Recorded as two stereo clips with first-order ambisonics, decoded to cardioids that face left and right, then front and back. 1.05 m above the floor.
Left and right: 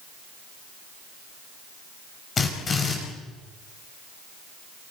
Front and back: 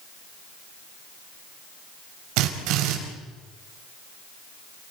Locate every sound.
2.4 s a drill: 160° left, 4.5 m